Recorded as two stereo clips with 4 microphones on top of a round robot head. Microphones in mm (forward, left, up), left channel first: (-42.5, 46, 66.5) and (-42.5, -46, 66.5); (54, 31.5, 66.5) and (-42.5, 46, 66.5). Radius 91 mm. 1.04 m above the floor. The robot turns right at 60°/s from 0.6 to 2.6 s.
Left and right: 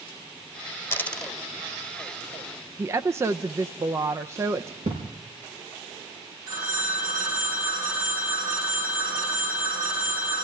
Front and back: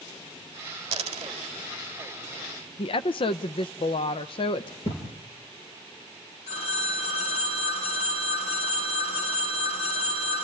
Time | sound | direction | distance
0.9 | a dropped coin | 155° left | 2 m
2.8 | a woman speaking | 30° right | 0.6 m
4.8 | a thud | 50° right | 5 m
6.5 | a phone ringing | 30° right | 8 m